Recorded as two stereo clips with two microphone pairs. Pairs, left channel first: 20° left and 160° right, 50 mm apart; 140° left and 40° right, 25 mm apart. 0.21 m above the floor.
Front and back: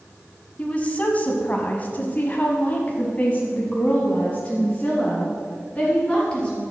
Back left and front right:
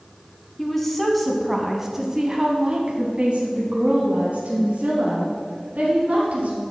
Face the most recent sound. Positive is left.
turn(degrees=-55)